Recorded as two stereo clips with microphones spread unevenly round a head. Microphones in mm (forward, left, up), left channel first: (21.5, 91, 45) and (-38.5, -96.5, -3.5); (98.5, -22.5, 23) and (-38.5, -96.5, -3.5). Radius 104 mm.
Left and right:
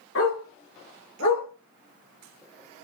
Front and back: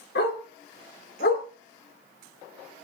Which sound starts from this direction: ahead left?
A dog barking, at 0.1 s.